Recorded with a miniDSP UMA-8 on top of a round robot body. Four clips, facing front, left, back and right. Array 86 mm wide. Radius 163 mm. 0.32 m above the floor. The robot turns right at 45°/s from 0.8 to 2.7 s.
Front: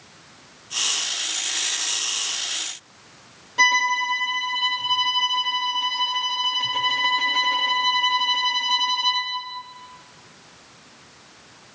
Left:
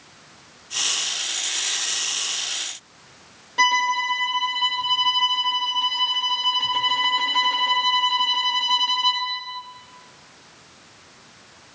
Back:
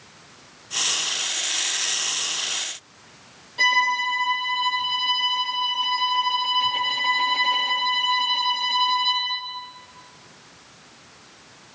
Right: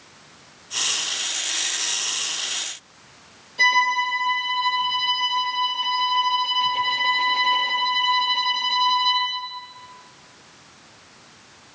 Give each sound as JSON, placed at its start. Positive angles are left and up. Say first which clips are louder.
{"t": 3.6, "sound": "a violin", "louder": "even, front 1 dB", "azimuth_deg": 70, "distance_m": 8.0}